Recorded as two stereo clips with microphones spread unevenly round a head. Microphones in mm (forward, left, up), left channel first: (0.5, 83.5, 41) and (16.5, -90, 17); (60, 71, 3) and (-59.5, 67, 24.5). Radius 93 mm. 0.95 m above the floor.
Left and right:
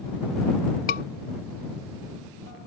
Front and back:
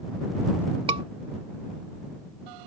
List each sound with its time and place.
0.9 s a scream: 140° left